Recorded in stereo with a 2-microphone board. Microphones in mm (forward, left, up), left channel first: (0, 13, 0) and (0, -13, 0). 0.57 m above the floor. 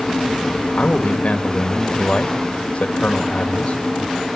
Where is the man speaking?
50° left (ahead or behind), 2 m.